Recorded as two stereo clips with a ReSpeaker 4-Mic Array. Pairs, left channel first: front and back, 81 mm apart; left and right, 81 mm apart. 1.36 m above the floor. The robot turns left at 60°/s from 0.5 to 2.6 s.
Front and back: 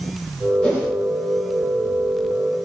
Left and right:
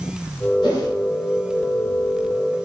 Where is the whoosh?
70° left, 1.4 m; by 0.9 s 55° left, 1.4 m.